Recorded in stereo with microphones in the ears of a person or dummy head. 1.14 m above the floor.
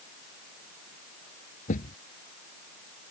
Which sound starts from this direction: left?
A thud, at 1.7 s.